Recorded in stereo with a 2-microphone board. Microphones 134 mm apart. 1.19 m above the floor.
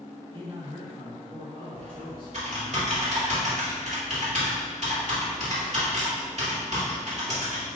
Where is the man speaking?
35° right (ahead or behind), 1.9 m; by 2.8 s 45° right (ahead or behind), 4 m.